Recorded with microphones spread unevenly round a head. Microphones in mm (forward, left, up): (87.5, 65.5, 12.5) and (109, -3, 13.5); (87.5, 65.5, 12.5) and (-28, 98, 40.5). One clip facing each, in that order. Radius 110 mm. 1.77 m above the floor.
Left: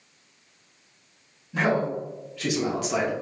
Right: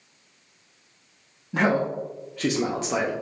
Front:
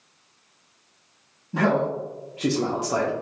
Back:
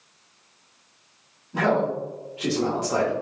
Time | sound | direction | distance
1.5 | a man speaking | 50° right | 0.9 m